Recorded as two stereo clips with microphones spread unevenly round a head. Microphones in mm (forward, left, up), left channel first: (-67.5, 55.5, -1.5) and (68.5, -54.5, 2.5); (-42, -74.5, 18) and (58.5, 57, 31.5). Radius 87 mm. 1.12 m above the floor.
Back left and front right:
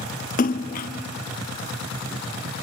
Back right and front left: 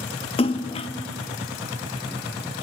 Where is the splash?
175° left, 0.6 m.